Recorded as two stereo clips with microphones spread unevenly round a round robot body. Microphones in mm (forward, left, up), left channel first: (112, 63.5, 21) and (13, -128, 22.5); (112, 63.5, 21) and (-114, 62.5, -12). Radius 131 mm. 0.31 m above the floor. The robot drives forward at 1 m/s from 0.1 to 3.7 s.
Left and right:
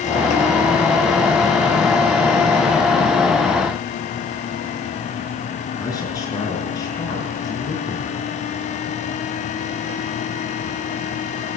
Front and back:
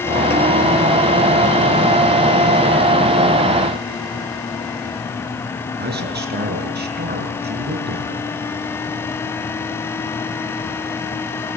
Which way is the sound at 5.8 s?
140° left.